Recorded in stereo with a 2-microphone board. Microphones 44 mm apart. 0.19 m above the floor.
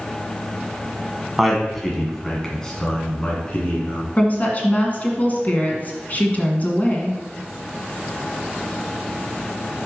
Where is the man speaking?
5° right (ahead or behind), 1.5 m; by 4.1 s 30° left (ahead or behind), 2.5 m.